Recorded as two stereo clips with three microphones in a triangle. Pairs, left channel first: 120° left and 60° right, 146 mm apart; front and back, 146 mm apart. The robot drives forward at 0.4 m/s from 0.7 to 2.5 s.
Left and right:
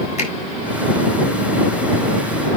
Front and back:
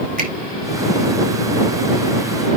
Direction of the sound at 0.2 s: 160° left.